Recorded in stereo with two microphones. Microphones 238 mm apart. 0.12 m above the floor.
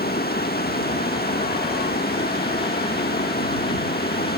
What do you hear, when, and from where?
0.0 s running water: 40° left (ahead or behind)